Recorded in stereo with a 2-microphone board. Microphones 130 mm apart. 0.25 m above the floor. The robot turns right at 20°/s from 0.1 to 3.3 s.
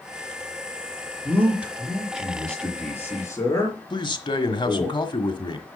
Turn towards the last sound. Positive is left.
turn(degrees=40)  # may be behind; listen again after turning